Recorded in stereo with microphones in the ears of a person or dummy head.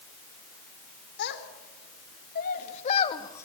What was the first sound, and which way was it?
A child speaking, 55° left (ahead or behind).